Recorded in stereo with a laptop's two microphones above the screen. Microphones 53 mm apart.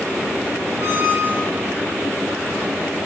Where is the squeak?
85° right, 3.5 m.